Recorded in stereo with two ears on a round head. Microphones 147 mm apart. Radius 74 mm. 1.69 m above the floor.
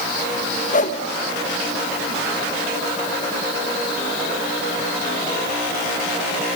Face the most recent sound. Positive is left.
turn(degrees=50)  # may be behind; listen again after turning